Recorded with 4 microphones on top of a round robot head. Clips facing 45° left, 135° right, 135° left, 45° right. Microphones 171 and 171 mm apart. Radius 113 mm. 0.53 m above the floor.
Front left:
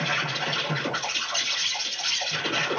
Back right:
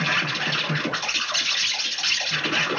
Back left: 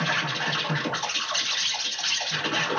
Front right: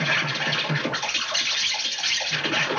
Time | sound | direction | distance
0.0 | an insect | 110° right | 1.0 m